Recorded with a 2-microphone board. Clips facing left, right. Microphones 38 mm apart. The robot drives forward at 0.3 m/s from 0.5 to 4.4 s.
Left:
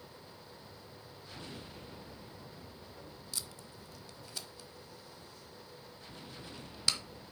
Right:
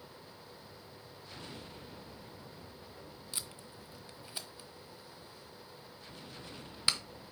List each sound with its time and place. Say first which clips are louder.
3.3 s tape being pulled: even; 25° right (ahead or behind), 0.8 m; by 7.0 s 20° right (ahead or behind), 1.1 m